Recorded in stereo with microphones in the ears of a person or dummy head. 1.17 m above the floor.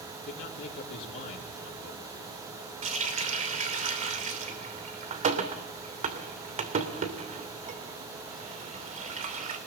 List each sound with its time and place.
0.3 s a man speaking: 60° left (ahead or behind), 3.5 m
2.8 s a running tap: 35° right (ahead or behind), 2.5 m